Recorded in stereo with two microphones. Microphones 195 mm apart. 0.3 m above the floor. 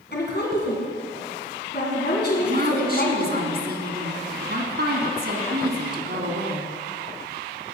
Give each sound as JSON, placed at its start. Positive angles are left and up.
{"t": 0.1, "sound": "a woman speaking", "side_deg": 60, "distance_m": 2.5}
{"t": 2.4, "sound": "a woman speaking", "side_deg": -60, "distance_m": 2.5}